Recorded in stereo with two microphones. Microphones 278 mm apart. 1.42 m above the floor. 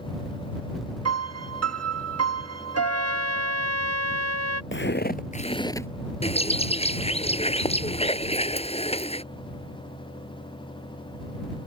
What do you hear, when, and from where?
1.1 s a piano: 60° right (ahead or behind)
2.7 s a trumpet: 65° right (ahead or behind)
4.7 s footsteps: 45° left (ahead or behind); by 5.9 s 10° left (ahead or behind)
6.2 s a bird: 20° left (ahead or behind)